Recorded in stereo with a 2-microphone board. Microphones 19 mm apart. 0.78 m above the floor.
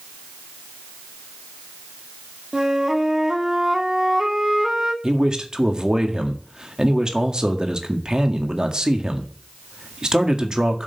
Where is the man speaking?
40° right (ahead or behind), 1.7 m.